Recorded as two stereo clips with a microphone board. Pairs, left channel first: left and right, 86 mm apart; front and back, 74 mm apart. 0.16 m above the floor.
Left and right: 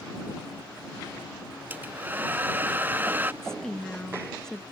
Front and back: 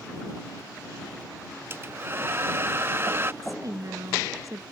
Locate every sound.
1.7 s a hair dryer: 145° right
3.4 s a woman speaking: 170° left